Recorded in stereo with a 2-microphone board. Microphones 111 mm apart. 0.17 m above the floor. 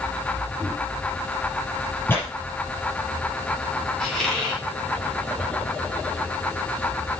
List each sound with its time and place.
0.6 s a microwave: 15° left (ahead or behind), 4.5 m
2.1 s tearing paper: 20° left (ahead or behind), 5 m
4.0 s a squeak: 5° left (ahead or behind), 4.5 m